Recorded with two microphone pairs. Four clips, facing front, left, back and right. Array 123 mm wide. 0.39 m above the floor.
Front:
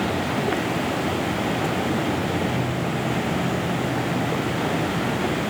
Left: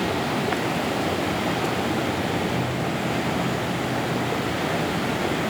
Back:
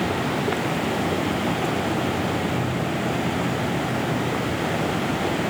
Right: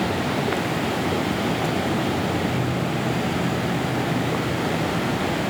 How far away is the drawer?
I don't hear a drawer.